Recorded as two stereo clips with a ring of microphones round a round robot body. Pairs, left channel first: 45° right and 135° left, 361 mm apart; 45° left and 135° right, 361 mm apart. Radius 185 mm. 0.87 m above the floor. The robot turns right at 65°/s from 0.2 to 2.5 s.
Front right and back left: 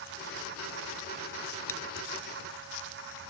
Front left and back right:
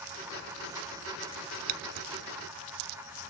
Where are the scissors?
130° right; by 2.1 s 105° right.